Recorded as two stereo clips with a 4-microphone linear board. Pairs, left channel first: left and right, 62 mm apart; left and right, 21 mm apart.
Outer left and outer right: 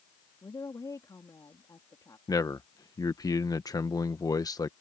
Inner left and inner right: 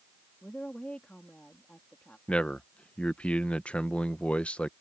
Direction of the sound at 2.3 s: 70° left (ahead or behind).